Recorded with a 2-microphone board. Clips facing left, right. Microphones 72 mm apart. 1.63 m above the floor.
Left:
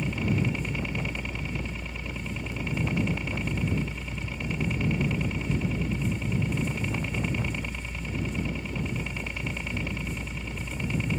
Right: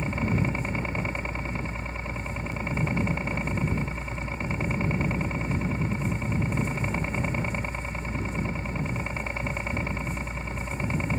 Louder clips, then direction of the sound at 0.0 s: Right 1 dB; 35° right (ahead or behind).